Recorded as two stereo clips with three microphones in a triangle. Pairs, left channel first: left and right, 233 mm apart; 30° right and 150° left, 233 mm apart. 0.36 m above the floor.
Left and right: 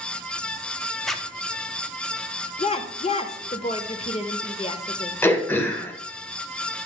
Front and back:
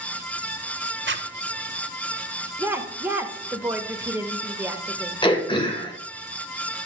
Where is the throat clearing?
15° left, 1.1 m.